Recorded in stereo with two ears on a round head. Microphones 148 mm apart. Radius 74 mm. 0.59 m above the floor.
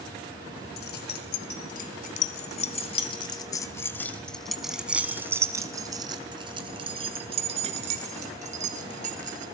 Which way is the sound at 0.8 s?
65° left (ahead or behind).